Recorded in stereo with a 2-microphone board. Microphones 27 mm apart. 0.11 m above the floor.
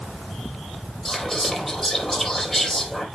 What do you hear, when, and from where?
1.1 s whispering: 5° left (ahead or behind), 3.5 m